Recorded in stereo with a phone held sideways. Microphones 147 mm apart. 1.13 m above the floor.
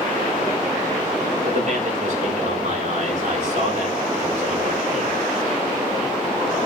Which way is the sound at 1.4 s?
55° right (ahead or behind).